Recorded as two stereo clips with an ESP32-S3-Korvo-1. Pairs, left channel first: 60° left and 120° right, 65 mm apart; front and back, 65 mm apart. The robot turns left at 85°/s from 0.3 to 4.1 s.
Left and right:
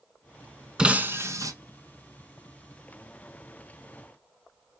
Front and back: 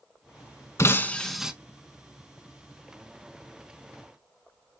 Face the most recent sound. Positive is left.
turn(degrees=35)